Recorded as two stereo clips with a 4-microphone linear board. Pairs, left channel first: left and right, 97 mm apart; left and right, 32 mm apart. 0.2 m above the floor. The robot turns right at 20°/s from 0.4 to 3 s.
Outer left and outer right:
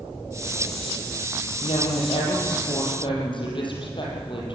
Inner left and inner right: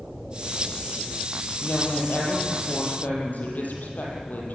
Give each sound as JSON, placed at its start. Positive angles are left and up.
{"t": 1.6, "sound": "a woman speaking", "side_deg": 80, "distance_m": 7.5}